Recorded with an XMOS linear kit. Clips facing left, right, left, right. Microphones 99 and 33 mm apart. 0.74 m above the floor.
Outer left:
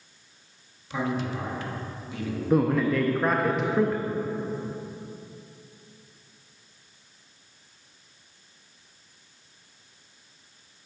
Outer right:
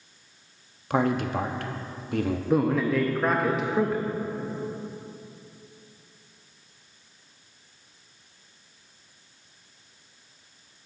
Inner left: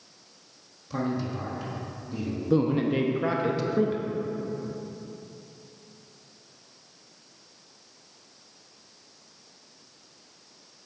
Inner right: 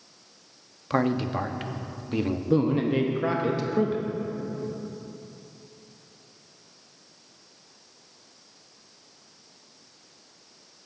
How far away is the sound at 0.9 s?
About 0.7 m.